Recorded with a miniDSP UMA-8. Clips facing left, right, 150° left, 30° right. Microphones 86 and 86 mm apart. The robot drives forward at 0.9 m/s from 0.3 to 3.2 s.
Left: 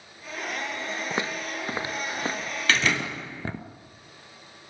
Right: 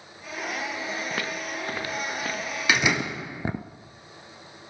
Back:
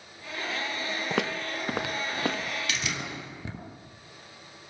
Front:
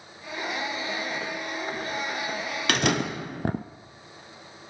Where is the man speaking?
I don't hear a man speaking.